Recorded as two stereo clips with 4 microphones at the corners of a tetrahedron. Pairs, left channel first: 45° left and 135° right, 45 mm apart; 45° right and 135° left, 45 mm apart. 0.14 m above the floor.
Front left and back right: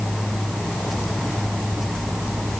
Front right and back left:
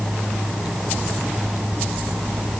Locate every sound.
Only background noise.